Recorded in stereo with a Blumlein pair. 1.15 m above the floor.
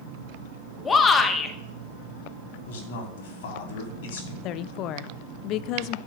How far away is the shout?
About 1.6 m.